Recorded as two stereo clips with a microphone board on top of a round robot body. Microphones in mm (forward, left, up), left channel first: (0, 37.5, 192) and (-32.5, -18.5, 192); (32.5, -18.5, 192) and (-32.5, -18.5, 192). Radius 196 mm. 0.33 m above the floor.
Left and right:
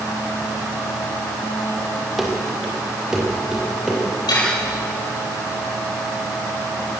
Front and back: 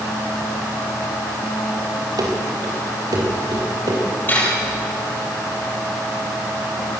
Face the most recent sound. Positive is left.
turn(degrees=60)